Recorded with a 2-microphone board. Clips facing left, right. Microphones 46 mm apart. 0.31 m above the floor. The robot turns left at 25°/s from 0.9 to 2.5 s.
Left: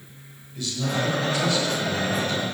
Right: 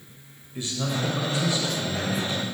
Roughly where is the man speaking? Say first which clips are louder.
Left 2 dB; right.